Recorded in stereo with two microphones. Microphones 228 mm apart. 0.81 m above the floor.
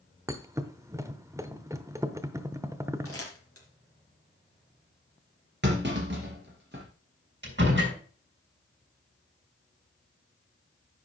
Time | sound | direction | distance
0.3 | a thud | 15° right (ahead or behind) | 0.8 m
3.0 | crumpling | 80° left | 3 m
5.6 | a clunk | 50° right (ahead or behind) | 3.5 m
7.4 | a door slam | 55° right (ahead or behind) | 5 m